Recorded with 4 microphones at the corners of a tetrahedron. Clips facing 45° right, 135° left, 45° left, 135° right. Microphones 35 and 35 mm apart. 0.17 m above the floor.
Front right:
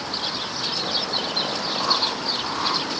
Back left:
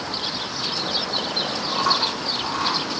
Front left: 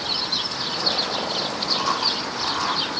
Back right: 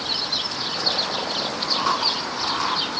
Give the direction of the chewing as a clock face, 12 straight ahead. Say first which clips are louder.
Back left 3 dB, back right 1 dB; 7 o'clock.